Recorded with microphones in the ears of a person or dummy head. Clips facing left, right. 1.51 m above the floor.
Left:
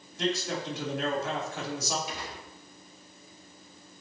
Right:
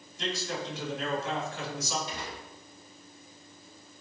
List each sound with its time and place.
0.2 s a man speaking: 60° left (ahead or behind), 3.5 m
2.1 s a gunshot: 15° left (ahead or behind), 4.5 m